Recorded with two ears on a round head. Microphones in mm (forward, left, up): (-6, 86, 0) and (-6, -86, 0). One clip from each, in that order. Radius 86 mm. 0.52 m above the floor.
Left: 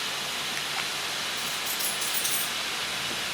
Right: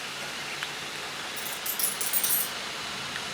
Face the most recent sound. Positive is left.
turn(degrees=-55)  # may be behind; listen again after turning